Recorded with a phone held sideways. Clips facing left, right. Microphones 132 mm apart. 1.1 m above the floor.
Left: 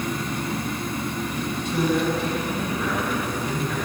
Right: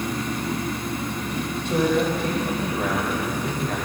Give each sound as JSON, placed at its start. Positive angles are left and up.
{"t": 1.6, "sound": "a man speaking", "side_deg": -55, "distance_m": 2.0}